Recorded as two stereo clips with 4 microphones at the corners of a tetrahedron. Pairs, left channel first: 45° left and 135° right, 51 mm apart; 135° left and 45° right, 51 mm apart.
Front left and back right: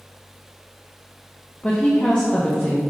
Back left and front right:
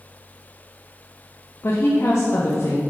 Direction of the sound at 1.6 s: 110° left.